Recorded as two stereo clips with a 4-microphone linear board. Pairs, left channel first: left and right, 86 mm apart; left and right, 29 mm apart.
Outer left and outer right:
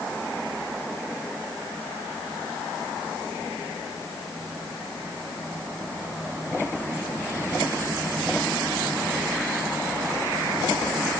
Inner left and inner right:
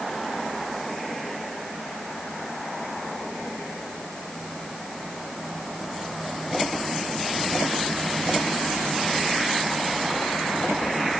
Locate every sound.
Only background noise.